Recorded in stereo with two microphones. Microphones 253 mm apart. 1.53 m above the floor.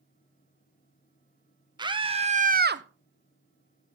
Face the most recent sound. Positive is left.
turn(degrees=-50)  # may be behind; listen again after turning